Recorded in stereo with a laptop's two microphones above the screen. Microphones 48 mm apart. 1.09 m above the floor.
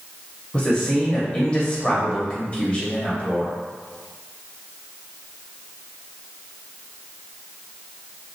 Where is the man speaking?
20° left (ahead or behind), 0.7 m.